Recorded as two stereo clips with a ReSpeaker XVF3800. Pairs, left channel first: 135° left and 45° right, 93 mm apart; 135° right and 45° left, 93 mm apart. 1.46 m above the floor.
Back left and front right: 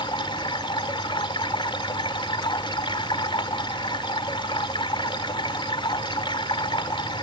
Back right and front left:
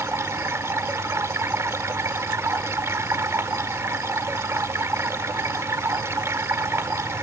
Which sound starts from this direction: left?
Running water, at 0.0 s.